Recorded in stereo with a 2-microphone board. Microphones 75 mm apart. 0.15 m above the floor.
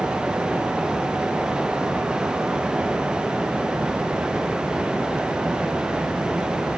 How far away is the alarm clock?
No alarm clock in this recording.